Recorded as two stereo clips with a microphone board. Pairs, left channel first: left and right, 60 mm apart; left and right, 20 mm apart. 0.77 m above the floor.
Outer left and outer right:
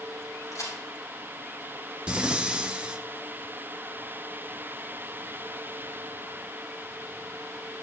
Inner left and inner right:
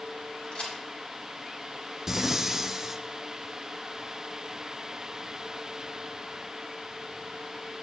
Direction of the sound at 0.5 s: 60° left (ahead or behind).